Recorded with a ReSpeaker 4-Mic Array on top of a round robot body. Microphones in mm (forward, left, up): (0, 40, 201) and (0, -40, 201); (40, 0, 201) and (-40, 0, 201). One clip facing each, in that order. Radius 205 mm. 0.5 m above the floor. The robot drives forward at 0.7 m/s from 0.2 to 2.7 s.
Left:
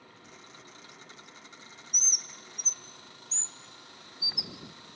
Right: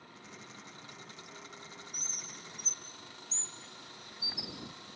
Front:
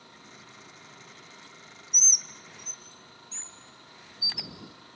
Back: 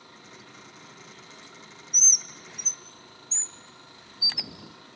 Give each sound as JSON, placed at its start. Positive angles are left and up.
{"t": 1.9, "sound": "a bird", "azimuth_deg": 80, "distance_m": 1.0}